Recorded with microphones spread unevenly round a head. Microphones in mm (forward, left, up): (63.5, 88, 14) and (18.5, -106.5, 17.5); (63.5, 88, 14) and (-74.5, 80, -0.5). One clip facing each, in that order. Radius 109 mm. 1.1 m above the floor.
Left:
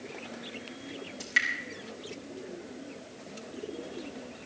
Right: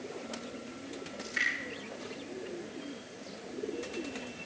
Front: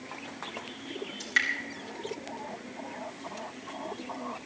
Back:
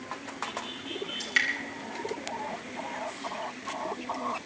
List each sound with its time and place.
1.2 s dripping: 105° left, 5.5 m